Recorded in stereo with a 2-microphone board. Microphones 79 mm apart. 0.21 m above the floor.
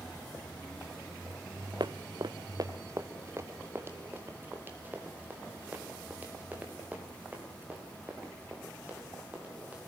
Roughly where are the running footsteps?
Right.